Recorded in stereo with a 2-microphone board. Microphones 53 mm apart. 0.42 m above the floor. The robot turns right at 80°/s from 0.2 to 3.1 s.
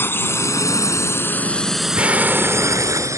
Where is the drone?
45° left (ahead or behind); by 3.2 s 70° right (ahead or behind).